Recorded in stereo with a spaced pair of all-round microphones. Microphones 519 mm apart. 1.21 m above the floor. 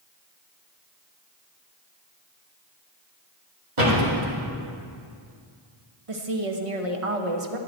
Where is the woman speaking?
80° right, 1.2 m.